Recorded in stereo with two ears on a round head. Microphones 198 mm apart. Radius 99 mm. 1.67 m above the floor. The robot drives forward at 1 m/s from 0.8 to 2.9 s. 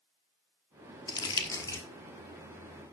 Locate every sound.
1.1 s crumpling: 20° left (ahead or behind), 1.3 m; by 1.8 s 15° left (ahead or behind), 1.6 m